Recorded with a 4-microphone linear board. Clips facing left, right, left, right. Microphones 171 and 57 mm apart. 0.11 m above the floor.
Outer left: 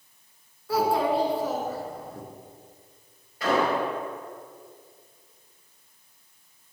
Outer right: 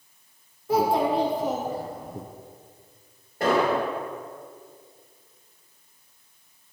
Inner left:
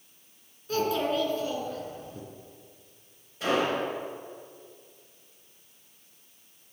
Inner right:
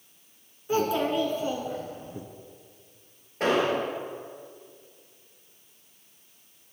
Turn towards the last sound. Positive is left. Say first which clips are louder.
# outer right 2 dB, inner right 2 dB
turn(degrees=-50)  # may be behind; listen again after turning